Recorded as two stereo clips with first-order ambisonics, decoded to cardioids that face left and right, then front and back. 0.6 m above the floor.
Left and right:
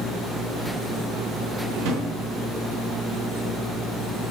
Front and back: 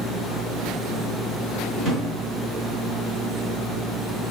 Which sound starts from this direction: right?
A drawer, at 1.8 s.